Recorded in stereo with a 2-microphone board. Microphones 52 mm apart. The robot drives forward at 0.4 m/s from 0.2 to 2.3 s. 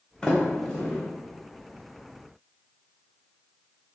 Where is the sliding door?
15° left (ahead or behind), 0.7 m.